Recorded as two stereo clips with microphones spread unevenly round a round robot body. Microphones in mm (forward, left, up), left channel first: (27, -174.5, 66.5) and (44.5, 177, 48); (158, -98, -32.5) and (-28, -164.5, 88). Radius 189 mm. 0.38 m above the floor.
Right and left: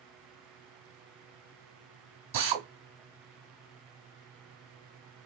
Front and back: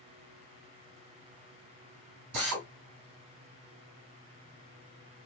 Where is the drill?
160° left, 2.5 m.